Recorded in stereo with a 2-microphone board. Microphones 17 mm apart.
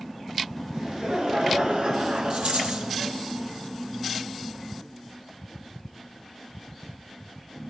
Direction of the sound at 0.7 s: 55° right (ahead or behind).